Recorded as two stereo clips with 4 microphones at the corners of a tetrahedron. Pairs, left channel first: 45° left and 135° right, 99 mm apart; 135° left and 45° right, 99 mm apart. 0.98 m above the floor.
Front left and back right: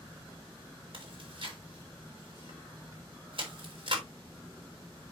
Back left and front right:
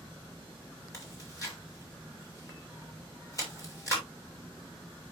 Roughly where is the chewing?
Behind.